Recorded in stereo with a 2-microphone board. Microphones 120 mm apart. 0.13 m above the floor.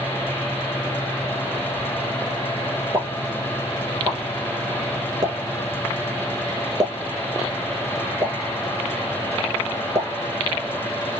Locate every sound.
2.9 s a pop: 35° right (ahead or behind), 1.3 m